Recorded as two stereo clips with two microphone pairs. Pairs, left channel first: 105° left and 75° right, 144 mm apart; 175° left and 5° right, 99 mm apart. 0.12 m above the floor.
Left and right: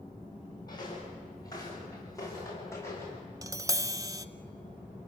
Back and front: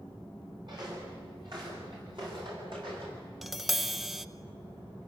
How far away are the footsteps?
About 9.5 m.